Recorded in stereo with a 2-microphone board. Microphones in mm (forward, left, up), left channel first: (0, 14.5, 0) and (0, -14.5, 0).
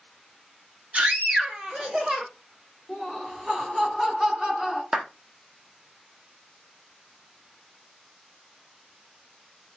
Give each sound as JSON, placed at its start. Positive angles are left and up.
{"t": 0.9, "sound": "a scream", "side_deg": -40, "distance_m": 2.0}
{"t": 2.9, "sound": "laughter", "side_deg": -20, "distance_m": 1.9}
{"t": 4.9, "sound": "a clap", "side_deg": -20, "distance_m": 1.0}